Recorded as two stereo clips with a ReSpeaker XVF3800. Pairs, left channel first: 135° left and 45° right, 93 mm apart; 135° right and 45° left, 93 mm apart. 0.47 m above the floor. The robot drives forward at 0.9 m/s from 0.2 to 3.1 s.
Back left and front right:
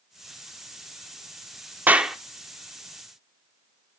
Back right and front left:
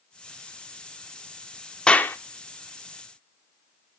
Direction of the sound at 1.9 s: 70° right.